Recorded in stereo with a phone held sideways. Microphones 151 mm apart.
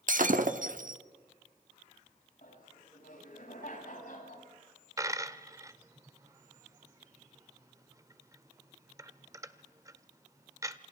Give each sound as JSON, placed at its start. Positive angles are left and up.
{"t": 0.1, "sound": "breaking glass", "side_deg": -65, "distance_m": 1.2}
{"t": 2.4, "sound": "laughter", "side_deg": 70, "distance_m": 7.5}
{"t": 5.0, "sound": "a dropped coin", "side_deg": -20, "distance_m": 0.9}